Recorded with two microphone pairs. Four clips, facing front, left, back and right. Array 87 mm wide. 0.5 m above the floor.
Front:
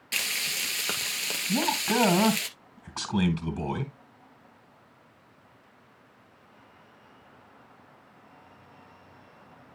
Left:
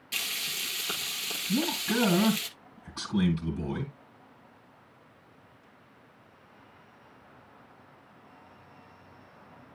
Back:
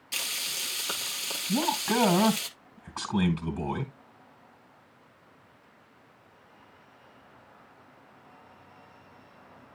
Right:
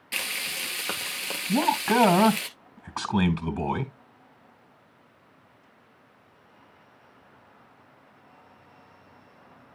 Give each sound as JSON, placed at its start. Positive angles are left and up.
{"t": 0.1, "sound": "frying", "azimuth_deg": -50, "distance_m": 1.9}
{"t": 1.5, "sound": "a man speaking", "azimuth_deg": -80, "distance_m": 3.0}